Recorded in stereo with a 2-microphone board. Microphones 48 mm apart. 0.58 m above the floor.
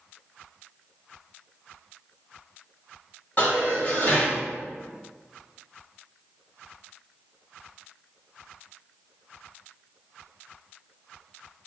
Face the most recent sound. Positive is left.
turn(degrees=45)  # may be behind; listen again after turning